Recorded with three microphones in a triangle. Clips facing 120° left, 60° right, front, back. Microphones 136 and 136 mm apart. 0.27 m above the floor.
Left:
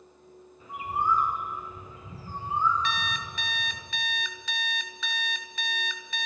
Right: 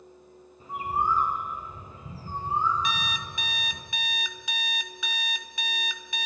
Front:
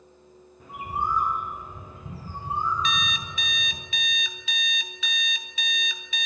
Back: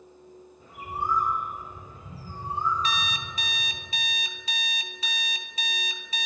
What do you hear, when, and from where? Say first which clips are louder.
0.6 s a bird: right 1 dB, front 3 dB; 10° right, 3 m
2.8 s an alarm clock: even, front 1 dB; 135° right, 1.0 m